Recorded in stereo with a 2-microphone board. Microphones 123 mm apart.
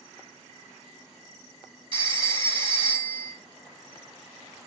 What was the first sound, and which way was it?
A phone ringing, 45° right (ahead or behind).